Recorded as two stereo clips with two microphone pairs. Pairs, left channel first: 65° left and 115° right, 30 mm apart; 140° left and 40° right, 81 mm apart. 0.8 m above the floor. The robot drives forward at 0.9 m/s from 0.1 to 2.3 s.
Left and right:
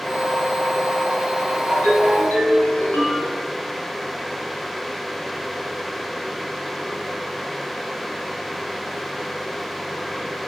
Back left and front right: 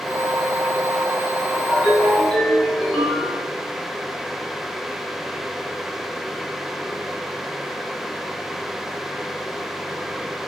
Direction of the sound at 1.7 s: 50° left.